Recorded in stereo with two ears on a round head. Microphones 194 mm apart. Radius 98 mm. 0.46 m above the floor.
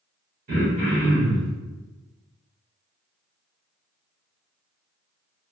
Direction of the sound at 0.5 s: 45° right (ahead or behind).